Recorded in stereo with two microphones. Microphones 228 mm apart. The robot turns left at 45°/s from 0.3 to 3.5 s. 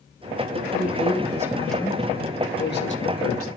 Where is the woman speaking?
130° right, 2.5 m; by 3.5 s 100° left, 2.5 m.